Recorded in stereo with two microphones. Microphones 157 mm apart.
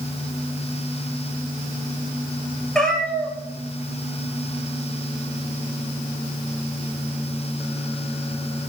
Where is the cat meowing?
5° left (ahead or behind), 2 m.